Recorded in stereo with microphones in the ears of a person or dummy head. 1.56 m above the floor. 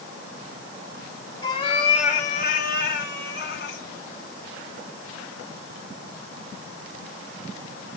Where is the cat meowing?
30° left (ahead or behind), 1.8 m; by 3.8 s 70° left (ahead or behind), 2.5 m.